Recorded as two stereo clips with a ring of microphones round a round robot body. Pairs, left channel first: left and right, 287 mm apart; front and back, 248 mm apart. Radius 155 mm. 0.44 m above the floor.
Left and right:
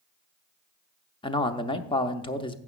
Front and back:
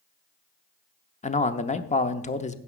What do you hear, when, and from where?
1.2 s a man speaking: 30° left, 0.8 m